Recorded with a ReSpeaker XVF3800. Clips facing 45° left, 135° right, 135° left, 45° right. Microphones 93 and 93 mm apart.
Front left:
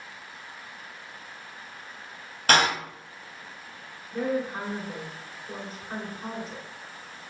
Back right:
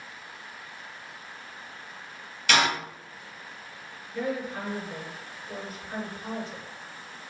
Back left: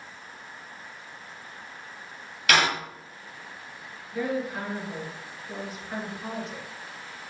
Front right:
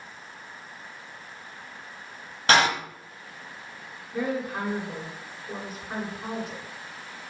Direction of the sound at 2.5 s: 5° left.